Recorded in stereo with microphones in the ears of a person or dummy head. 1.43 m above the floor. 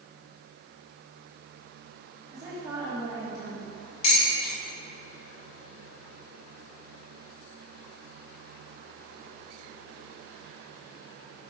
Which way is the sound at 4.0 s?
35° left (ahead or behind).